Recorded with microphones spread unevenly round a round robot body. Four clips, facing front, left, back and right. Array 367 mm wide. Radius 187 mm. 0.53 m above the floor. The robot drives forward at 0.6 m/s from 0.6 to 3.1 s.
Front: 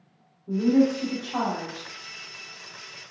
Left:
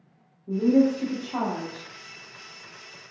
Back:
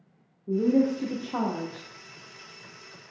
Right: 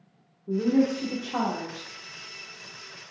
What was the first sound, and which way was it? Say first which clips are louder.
A woman speaking: left 3 dB, front 2 dB; 165° right.